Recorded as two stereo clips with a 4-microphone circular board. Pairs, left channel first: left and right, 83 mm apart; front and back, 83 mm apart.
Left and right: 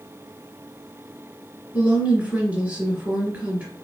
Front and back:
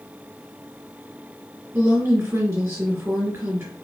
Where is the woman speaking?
145° right, 1.5 m.